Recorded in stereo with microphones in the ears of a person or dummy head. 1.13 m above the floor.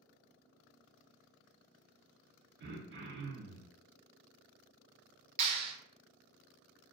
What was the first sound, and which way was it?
Throat clearing, 55° right (ahead or behind).